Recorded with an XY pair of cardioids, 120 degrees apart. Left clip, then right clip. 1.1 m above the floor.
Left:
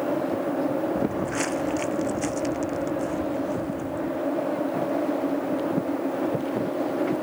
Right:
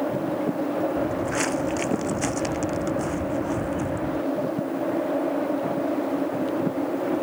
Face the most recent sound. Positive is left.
turn(degrees=-45)